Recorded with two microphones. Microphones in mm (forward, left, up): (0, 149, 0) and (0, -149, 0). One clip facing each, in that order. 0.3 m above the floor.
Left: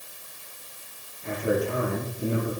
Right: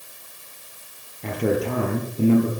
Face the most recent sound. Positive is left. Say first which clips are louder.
# right 3 dB
turn(degrees=-80)